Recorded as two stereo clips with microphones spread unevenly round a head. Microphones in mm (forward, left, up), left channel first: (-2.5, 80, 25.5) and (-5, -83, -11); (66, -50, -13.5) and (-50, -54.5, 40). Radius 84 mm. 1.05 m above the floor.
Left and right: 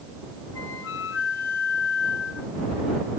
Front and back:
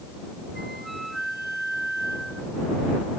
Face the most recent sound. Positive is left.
turn(degrees=95)